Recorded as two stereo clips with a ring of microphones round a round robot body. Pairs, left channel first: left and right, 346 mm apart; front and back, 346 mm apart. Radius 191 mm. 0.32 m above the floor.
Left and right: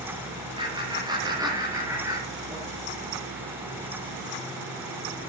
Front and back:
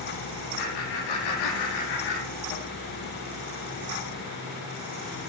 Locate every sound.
0.6 s laughter: 15° right, 9 m; by 2.6 s 5° right, 8.5 m